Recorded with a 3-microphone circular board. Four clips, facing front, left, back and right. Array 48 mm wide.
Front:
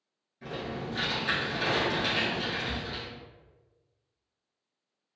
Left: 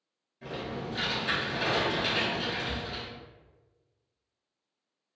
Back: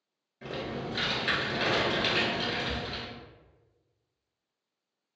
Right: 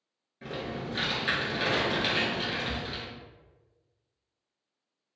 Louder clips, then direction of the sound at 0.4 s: Right 1 dB, back 1 dB; 125° right.